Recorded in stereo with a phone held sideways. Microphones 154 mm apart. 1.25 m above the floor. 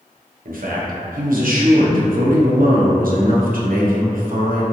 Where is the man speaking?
70° right (ahead or behind), 0.7 m.